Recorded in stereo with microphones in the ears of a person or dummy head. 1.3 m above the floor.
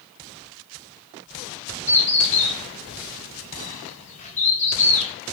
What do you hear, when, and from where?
1.9 s a bird: 40° left (ahead or behind), 0.7 m